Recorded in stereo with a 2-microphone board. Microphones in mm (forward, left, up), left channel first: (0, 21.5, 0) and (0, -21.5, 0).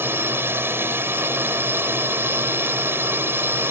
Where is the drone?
65° right (ahead or behind).